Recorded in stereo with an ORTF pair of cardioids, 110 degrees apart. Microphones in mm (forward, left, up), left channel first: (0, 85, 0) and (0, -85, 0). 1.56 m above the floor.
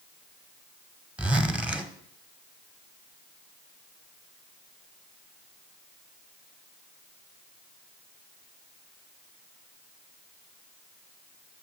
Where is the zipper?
5° right, 0.8 m.